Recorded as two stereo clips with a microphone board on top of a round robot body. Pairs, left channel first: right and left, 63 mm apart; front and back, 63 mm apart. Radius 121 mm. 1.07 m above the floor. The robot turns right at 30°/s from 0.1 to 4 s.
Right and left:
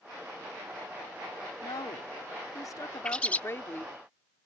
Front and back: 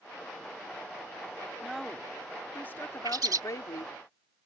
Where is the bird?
165° right; by 3.4 s 155° right.